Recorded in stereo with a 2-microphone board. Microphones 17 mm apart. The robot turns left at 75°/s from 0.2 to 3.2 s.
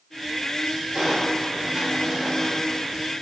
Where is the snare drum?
I don't hear a snare drum.